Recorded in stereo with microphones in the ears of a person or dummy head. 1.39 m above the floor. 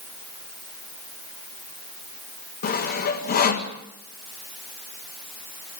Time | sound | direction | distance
2.6 | sawing | 40° left (ahead or behind) | 1.9 m